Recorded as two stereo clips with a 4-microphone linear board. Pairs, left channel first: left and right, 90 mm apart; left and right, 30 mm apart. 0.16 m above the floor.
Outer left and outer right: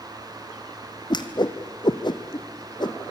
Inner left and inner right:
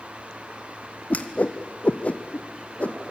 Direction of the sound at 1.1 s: 55° left (ahead or behind).